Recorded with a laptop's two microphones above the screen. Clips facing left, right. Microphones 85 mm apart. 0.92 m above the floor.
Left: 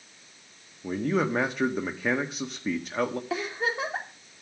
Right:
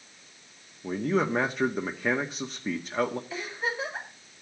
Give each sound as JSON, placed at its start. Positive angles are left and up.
{"t": 0.8, "sound": "a man speaking", "side_deg": 0, "distance_m": 1.5}
{"t": 3.3, "sound": "a giggle", "side_deg": 75, "distance_m": 3.0}